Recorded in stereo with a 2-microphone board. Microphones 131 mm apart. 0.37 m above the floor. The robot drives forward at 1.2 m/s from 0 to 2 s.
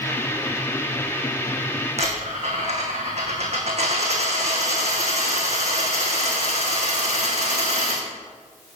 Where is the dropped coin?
55° right (ahead or behind), 3 m.